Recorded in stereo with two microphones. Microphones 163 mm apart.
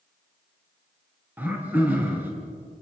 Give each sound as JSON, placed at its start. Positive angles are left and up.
{"t": 1.4, "sound": "throat clearing", "side_deg": -10, "distance_m": 4.5}